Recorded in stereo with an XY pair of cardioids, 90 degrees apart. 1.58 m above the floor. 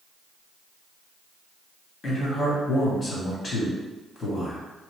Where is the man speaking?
50° left, 1.8 m.